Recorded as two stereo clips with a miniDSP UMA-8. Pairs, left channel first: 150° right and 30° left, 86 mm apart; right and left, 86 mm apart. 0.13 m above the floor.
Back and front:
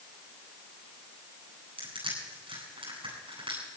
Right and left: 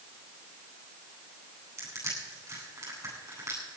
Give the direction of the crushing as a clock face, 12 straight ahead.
11 o'clock.